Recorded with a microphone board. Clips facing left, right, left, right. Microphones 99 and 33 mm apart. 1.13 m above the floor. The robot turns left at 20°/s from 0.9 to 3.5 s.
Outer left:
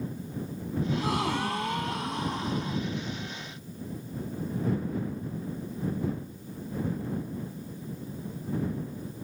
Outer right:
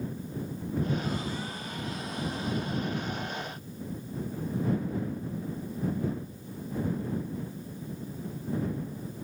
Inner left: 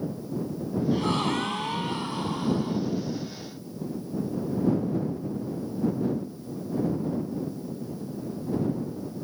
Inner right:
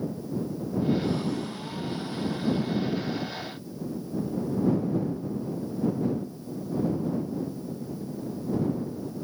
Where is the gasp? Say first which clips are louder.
Outer left 4 dB, inner left 5 dB; 85° left; by 2.8 s 45° left.